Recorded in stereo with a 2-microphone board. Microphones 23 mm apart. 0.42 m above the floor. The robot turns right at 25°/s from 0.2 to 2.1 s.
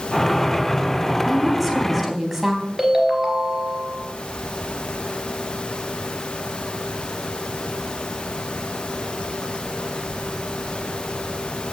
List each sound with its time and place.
1.2 s a woman speaking: 15° left (ahead or behind), 3.5 m; by 2.6 s 10° right (ahead or behind), 3.5 m
2.8 s a ringtone: 15° right (ahead or behind), 2.5 m